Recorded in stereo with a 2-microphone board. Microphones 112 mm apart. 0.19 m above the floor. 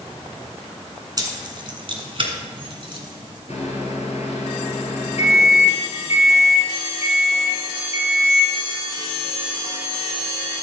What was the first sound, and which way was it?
Keys jangling, 35° right (ahead or behind).